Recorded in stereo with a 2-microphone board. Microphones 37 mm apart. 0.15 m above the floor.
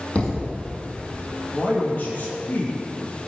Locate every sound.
0.1 s a thud: 35° left (ahead or behind), 3 m
1.5 s a man speaking: 45° left (ahead or behind), 3.5 m